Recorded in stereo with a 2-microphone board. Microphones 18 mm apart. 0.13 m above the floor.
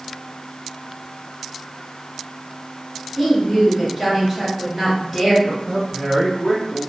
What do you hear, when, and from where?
3.2 s a woman speaking: 25° right (ahead or behind), 1.6 m
5.4 s a man speaking: 15° right (ahead or behind), 1.2 m